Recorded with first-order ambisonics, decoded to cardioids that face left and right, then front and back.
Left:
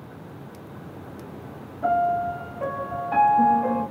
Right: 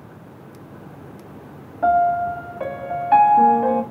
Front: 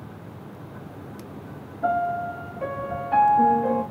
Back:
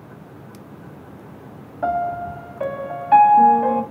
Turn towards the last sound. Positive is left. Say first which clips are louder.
# right 5 dB, back 2 dB
turn(degrees=-135)